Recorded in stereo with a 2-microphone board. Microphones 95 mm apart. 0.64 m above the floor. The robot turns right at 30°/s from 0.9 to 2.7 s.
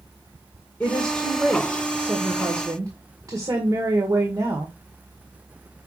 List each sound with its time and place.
0.8 s a woman speaking: 165° left, 1.7 m; by 4.8 s 140° right, 1.7 m